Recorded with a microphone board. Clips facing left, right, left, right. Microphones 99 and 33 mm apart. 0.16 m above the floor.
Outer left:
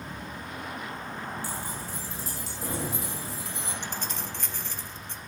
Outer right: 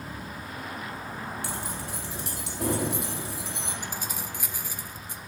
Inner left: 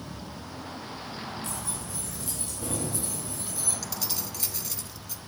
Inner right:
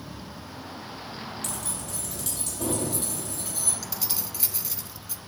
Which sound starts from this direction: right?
Keys jangling, at 1.4 s.